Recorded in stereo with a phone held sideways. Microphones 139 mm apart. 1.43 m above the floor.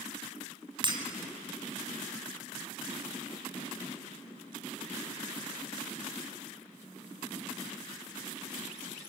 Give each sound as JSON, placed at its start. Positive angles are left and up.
{"t": 0.8, "sound": "breaking glass", "side_deg": -35, "distance_m": 2.0}